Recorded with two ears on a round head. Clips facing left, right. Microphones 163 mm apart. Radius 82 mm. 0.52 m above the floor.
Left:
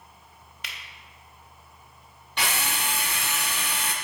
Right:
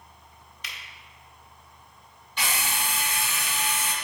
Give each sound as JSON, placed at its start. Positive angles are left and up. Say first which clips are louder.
{"t": 0.6, "sound": "a finger snap", "louder": "left 1 dB", "side_deg": 50, "distance_m": 1.0}
{"t": 2.4, "sound": "a drill", "louder": "left 1 dB", "side_deg": 50, "distance_m": 0.6}